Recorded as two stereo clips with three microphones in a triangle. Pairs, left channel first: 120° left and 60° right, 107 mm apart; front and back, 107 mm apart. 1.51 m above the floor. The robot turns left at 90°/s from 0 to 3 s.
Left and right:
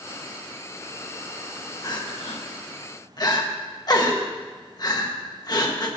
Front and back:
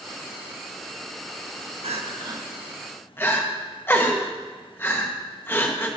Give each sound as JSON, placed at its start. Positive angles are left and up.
{"t": 1.8, "sound": "crying", "azimuth_deg": 175, "distance_m": 1.4}